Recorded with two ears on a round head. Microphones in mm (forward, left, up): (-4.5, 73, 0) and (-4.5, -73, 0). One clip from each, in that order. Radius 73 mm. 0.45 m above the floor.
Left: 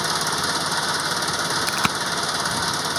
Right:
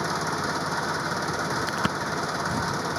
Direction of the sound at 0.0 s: 60° left (ahead or behind).